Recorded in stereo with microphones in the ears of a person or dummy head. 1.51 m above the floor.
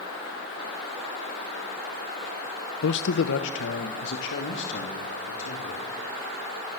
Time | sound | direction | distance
2.8 | a man speaking | 70° left (ahead or behind) | 0.7 m